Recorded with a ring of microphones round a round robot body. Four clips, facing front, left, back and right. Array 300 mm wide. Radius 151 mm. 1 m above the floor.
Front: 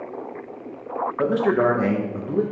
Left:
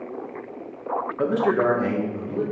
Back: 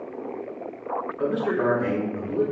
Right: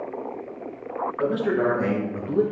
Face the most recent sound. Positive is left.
turn(degrees=-35)